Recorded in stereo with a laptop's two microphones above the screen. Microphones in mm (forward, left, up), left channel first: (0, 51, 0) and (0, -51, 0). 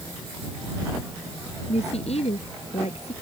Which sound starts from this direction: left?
A woman speaking, at 1.7 s.